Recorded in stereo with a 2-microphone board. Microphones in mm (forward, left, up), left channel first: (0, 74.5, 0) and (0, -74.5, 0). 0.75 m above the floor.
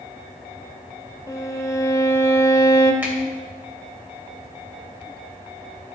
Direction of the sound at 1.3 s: 20° left (ahead or behind).